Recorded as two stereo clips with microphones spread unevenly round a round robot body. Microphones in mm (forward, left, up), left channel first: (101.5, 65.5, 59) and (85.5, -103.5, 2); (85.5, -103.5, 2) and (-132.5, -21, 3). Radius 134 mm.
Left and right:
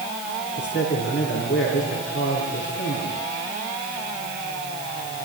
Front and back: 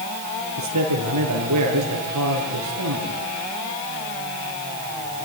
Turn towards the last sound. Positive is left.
turn(degrees=135)